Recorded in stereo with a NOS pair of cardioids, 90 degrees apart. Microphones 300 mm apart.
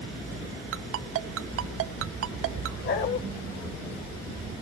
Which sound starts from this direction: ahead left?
A dog barking, at 2.8 s.